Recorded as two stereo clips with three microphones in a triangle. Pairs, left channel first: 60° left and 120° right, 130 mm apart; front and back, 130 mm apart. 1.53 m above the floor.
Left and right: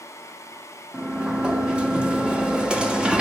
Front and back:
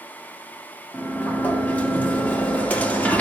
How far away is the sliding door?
About 1.1 m.